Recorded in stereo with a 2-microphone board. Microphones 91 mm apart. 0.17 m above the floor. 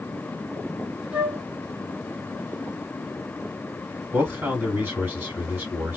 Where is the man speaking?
25° right (ahead or behind), 1.6 m.